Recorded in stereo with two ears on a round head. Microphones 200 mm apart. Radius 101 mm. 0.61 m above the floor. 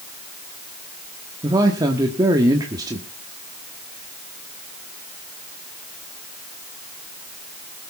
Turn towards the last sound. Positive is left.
turn(degrees=-15)  # may be behind; listen again after turning